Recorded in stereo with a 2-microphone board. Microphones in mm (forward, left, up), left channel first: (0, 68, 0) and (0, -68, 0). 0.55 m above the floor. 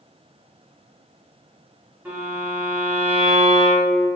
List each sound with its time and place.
2.0 s a violin: 10° right (ahead or behind), 1.4 m